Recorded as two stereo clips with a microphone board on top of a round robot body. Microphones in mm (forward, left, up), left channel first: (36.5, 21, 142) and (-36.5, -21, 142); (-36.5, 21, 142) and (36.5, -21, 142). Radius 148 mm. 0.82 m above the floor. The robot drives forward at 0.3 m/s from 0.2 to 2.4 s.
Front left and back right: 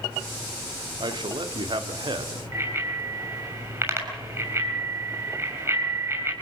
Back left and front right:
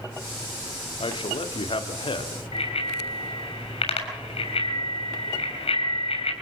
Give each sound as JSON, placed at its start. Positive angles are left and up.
{"t": 1.0, "sound": "a man speaking", "azimuth_deg": 175, "distance_m": 2.5}
{"t": 2.5, "sound": "a bicycle bell", "azimuth_deg": 150, "distance_m": 7.5}